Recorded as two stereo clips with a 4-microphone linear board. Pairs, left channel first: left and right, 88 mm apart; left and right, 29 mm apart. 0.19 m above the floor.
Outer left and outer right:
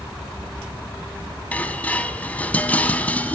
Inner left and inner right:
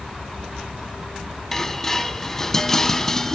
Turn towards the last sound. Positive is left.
turn(degrees=15)  # may be behind; listen again after turning